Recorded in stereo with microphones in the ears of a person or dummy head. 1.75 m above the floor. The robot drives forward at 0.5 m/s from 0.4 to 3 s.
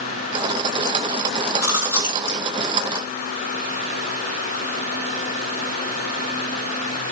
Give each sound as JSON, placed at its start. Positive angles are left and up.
{"t": 1.6, "sound": "chewing", "side_deg": -10, "distance_m": 6.5}